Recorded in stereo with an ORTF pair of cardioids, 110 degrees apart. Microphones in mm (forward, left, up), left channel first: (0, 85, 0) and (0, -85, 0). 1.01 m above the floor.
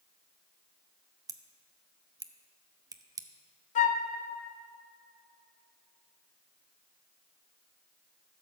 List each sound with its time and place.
1.3 s scissors: 20° right, 0.6 m
3.8 s a flute: 45° left, 0.7 m